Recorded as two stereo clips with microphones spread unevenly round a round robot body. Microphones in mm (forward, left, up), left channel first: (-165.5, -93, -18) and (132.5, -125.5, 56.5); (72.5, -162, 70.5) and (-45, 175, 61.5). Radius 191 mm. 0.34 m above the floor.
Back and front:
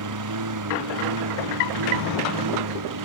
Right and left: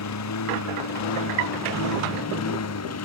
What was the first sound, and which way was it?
A lawn mower, 25° right.